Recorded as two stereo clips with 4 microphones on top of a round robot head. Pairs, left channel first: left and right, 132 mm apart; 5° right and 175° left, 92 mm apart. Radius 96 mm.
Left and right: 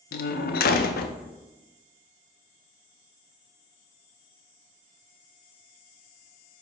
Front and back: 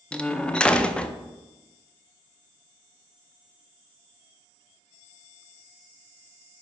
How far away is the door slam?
About 0.5 m.